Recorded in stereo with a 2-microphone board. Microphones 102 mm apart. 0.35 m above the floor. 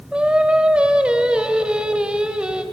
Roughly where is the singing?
Centre.